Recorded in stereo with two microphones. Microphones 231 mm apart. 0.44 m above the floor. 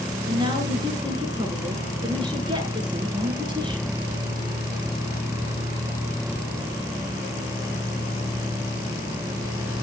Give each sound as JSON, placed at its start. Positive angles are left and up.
{"t": 0.3, "sound": "a woman speaking", "side_deg": -20, "distance_m": 6.5}